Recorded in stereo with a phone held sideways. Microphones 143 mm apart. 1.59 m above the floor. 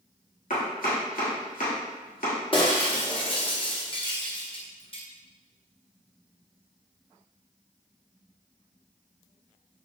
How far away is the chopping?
About 1.3 m.